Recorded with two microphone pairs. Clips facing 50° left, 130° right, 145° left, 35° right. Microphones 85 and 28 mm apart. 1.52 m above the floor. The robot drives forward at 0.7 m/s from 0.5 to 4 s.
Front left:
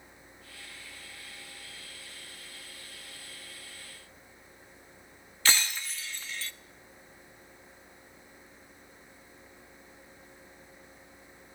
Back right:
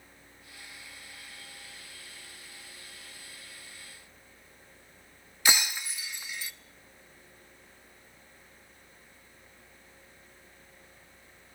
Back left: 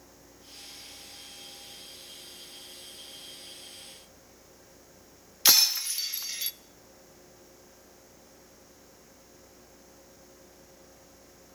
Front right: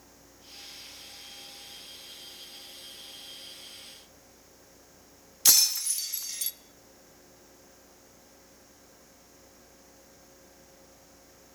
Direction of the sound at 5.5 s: 165° left.